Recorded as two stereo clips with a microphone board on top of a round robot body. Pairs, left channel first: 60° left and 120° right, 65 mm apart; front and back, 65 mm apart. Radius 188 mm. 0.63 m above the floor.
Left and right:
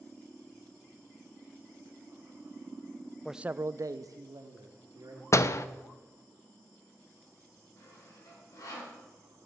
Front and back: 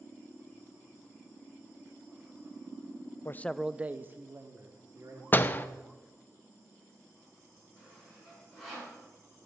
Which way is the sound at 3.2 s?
25° right.